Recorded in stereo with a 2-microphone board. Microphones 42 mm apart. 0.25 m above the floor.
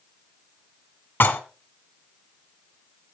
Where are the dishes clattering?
55° left (ahead or behind), 1.5 m.